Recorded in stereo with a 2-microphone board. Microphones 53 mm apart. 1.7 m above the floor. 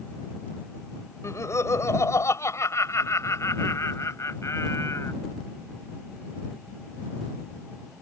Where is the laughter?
65° left (ahead or behind); by 5.1 s 60° left (ahead or behind).